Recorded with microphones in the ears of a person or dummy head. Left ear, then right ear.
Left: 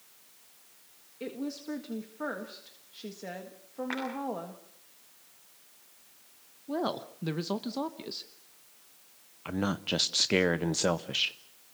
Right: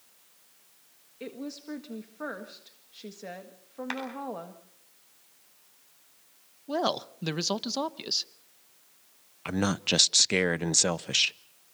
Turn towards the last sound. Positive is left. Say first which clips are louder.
# right 4 dB
turn(degrees=-70)  # may be behind; listen again after turning